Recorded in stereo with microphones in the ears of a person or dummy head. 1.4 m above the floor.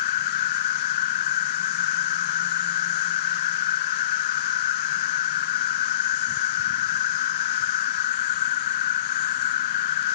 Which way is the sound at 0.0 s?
35° left (ahead or behind).